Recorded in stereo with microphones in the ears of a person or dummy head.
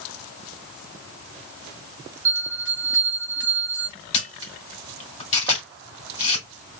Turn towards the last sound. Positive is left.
turn(degrees=35)  # may be behind; listen again after turning